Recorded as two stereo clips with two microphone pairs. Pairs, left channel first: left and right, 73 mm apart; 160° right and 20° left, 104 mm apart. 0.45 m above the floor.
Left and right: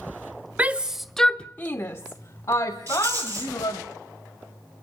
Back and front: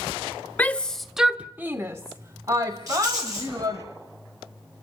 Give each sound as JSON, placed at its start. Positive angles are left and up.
{"t": 0.6, "sound": "a shout", "azimuth_deg": -115, "distance_m": 0.9}
{"t": 2.9, "sound": "a rattle", "azimuth_deg": -35, "distance_m": 9.0}